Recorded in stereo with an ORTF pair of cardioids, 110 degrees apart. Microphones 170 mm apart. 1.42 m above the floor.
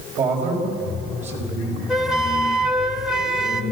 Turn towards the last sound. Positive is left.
turn(degrees=-5)